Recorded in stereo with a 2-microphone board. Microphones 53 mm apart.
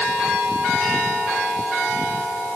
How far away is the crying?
I don't hear crying.